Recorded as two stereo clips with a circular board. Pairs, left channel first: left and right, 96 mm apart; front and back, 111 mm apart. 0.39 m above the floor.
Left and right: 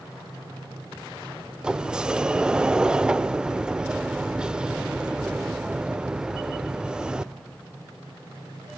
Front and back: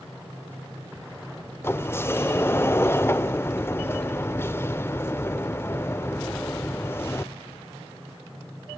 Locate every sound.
1.6 s a sliding door: 25° right, 0.6 m